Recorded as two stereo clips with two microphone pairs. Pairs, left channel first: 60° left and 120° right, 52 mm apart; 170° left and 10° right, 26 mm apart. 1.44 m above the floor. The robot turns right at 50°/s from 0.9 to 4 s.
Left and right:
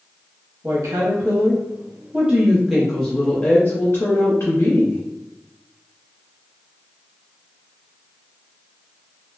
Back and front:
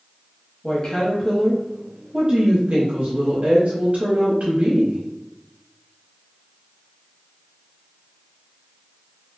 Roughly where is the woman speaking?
Behind right.